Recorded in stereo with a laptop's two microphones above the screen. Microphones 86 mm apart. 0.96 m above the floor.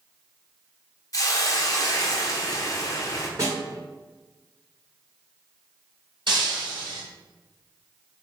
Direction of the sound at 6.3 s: 80° right.